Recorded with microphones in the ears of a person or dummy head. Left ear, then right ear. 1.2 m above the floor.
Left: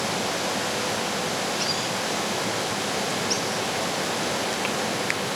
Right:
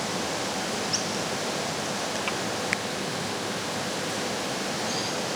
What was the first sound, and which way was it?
Only background noise.